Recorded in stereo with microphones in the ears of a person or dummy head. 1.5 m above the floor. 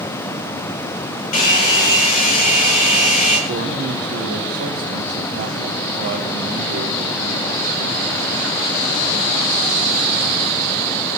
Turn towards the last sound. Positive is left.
turn(degrees=-55)  # may be behind; listen again after turning